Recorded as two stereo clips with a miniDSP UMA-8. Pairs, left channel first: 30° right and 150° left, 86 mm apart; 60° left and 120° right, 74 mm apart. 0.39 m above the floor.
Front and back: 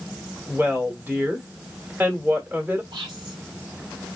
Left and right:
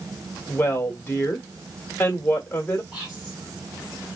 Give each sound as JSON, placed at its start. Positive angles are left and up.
{"t": 0.5, "sound": "a woman speaking", "azimuth_deg": 100, "distance_m": 1.2}
{"t": 2.9, "sound": "whispering", "azimuth_deg": 180, "distance_m": 3.0}